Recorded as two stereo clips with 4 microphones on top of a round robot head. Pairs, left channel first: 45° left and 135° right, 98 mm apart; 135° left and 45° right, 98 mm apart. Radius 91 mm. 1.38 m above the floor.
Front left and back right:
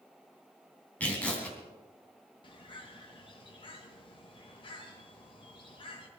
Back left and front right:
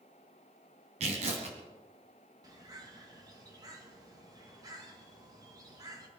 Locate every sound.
1.0 s tearing paper: 30° right, 2.5 m
2.4 s a bird: 10° left, 2.5 m